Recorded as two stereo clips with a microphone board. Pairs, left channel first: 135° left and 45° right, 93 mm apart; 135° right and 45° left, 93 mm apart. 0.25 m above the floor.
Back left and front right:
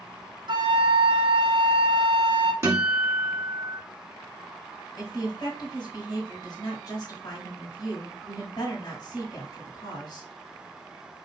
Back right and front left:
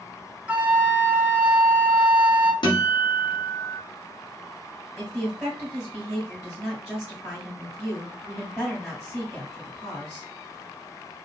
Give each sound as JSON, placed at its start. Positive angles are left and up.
{"t": 0.5, "sound": "a flute", "azimuth_deg": -25, "distance_m": 0.6}
{"t": 2.6, "sound": "a guitar", "azimuth_deg": -105, "distance_m": 2.0}
{"t": 5.0, "sound": "a woman speaking", "azimuth_deg": 130, "distance_m": 1.9}